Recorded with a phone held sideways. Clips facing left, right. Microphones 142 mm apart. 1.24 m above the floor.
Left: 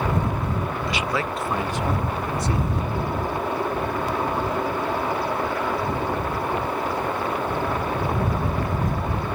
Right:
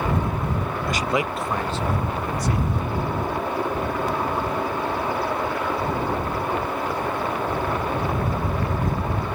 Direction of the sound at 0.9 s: 55° right (ahead or behind).